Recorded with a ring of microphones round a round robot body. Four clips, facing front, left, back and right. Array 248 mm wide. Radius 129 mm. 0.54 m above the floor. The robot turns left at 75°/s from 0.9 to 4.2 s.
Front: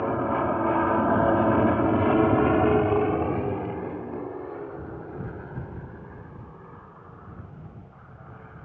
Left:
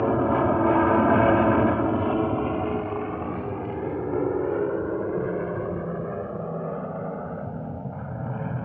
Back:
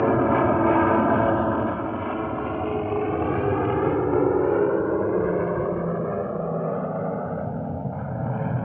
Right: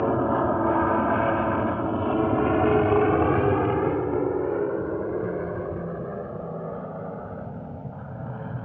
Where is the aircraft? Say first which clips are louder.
Left 1 dB, back 6 dB; 175° left; by 8.7 s 165° left.